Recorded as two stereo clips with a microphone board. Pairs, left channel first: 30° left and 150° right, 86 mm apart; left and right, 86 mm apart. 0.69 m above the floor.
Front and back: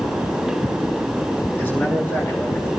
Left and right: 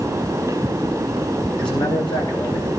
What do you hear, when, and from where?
1.6 s a man speaking: 95° left, 9.5 m